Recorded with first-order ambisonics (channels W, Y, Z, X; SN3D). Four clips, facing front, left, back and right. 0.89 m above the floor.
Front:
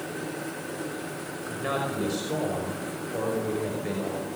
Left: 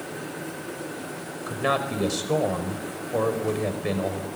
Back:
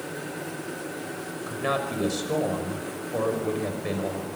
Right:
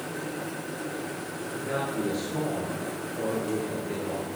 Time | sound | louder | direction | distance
1.5 | a man speaking | left 6 dB, back 2 dB | 105° left | 5 m